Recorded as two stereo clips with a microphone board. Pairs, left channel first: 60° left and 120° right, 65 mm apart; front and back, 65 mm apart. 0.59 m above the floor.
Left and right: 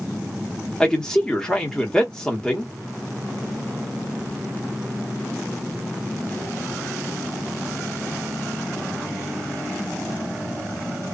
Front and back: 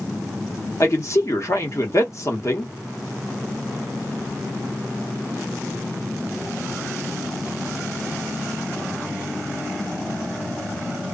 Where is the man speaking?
15° right, 0.9 m.